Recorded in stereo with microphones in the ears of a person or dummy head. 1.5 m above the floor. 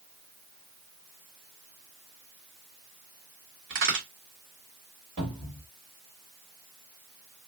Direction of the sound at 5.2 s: 30° right (ahead or behind).